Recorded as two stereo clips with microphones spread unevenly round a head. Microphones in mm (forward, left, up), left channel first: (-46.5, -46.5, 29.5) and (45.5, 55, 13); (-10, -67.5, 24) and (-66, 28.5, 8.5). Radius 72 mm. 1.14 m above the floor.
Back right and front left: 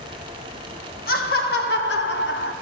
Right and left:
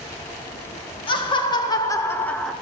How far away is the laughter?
About 1.9 m.